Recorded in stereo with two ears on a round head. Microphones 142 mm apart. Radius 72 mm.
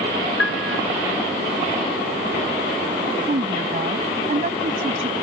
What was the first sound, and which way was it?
A piano, 70° left (ahead or behind).